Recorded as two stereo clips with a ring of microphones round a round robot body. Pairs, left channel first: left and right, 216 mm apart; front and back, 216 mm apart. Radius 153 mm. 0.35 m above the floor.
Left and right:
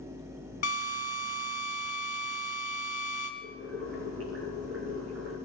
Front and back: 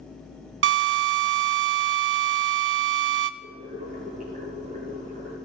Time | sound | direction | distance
0.6 | a drill | 150° left | 0.6 m
3.4 | boiling | 115° right | 3.5 m